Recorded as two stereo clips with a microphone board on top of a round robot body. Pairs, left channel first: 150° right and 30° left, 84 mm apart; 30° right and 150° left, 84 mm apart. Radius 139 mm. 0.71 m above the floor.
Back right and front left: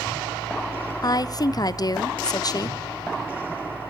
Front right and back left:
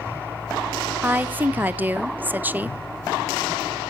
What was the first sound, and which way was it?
A woman speaking, 150° right.